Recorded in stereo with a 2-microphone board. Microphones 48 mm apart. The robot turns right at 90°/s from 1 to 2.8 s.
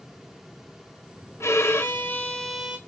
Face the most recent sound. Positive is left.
turn(degrees=-155)